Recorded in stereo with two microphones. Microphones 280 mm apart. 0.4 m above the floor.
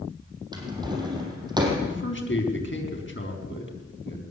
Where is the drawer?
15° right (ahead or behind), 5 m.